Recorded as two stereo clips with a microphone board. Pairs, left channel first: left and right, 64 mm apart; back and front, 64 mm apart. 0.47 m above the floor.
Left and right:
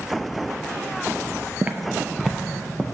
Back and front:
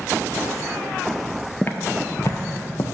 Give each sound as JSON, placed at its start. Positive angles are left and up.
{"t": 1.6, "sound": "footsteps", "azimuth_deg": -140, "distance_m": 0.5}